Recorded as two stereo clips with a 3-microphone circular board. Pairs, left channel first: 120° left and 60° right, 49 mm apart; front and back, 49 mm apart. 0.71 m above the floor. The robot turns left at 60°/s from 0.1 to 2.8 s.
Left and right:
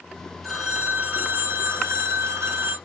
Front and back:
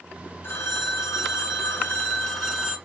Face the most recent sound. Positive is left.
turn(degrees=-110)